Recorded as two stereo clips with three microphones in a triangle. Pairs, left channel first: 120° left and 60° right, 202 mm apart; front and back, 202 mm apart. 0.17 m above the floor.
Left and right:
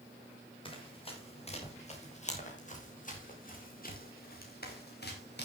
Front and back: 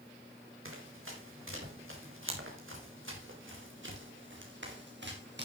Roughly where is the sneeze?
I don't hear a sneeze.